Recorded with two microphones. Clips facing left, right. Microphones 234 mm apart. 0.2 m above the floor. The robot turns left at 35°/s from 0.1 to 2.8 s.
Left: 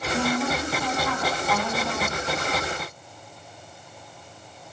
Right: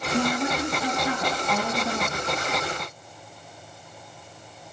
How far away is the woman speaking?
About 1.1 m.